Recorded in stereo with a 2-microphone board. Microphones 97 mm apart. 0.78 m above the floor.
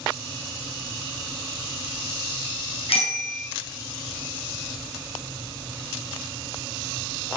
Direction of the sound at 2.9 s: 90° left.